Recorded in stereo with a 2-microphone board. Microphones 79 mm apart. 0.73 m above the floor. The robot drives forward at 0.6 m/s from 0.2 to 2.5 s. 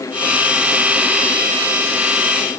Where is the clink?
I don't hear a clink.